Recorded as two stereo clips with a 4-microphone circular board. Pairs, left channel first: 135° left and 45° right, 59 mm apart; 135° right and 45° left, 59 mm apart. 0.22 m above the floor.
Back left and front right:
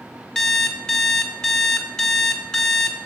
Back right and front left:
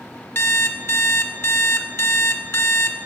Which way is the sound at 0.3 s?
155° right.